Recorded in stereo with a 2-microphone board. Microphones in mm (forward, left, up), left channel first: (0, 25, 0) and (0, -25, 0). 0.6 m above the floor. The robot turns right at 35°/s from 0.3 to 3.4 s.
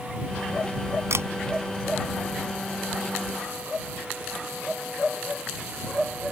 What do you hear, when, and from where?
1.1 s a camera shutter: 65° right (ahead or behind); by 1.3 s 60° right (ahead or behind)